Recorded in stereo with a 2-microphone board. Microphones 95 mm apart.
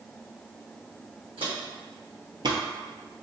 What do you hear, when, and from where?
1.4 s footsteps: 70° right (ahead or behind), 1.9 m; by 2.6 s 40° right (ahead or behind), 0.5 m